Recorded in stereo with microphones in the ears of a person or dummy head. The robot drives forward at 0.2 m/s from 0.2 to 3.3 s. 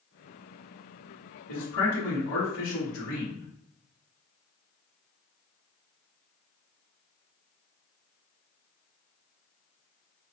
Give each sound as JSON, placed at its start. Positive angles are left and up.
{"t": 1.5, "sound": "a man speaking", "side_deg": 70, "distance_m": 0.7}